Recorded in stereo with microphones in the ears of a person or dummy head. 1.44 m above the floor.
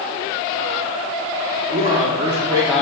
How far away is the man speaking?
About 1.4 m.